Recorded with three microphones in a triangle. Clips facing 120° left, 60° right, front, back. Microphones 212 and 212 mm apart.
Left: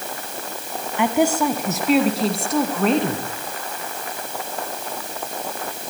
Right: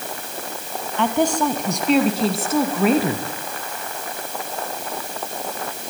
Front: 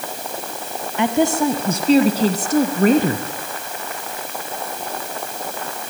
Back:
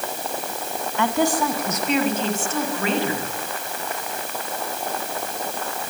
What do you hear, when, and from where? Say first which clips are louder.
1.0 s a woman speaking: left 1 dB, front 4 dB; 50° left, 1.6 m; by 3.3 s 20° left, 2.5 m